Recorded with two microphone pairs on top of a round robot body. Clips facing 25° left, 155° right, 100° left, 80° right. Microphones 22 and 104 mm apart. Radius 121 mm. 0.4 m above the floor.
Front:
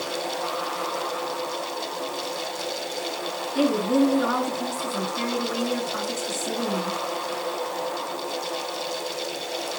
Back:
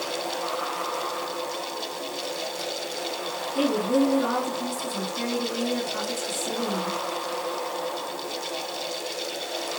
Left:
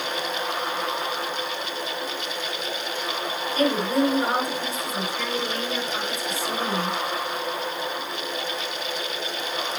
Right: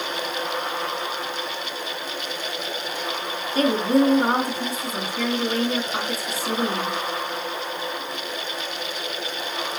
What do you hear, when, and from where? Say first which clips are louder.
3.5 s a woman speaking: front 2 dB, right 3 dB; 25° right, 7 m